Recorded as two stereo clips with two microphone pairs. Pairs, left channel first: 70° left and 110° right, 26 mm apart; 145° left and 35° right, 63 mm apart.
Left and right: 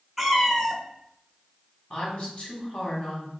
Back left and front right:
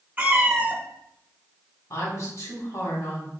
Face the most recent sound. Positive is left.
turn(degrees=125)